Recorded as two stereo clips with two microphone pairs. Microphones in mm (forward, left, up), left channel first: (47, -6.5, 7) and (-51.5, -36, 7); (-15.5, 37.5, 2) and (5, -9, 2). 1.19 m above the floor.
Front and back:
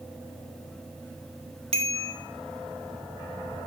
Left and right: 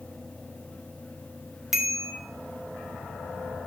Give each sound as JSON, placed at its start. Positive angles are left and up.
{"t": 1.7, "sound": "a bicycle bell", "azimuth_deg": -150, "distance_m": 2.5}